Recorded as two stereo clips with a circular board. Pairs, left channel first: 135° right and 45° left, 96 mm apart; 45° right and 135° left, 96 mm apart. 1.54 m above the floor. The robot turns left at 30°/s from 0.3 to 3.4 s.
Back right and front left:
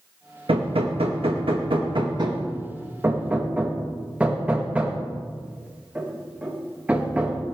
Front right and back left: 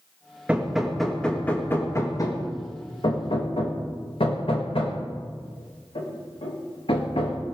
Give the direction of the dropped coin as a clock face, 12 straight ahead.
No dropped coin in this recording.